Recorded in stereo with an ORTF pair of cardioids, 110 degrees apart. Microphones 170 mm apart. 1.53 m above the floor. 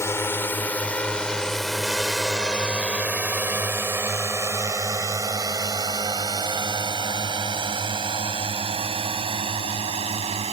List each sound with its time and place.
0.0 s a drone: 15° left; by 10.5 s 35° right